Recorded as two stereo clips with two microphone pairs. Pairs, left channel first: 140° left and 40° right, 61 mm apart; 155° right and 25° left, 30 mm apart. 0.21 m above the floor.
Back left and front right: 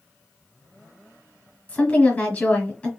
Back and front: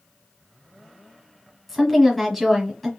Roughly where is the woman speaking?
Left.